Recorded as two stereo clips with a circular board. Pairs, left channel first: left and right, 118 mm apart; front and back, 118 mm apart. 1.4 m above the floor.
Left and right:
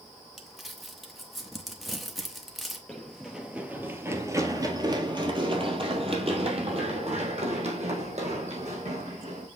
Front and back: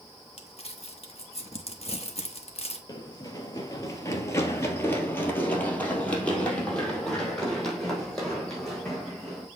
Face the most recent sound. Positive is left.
turn(degrees=-90)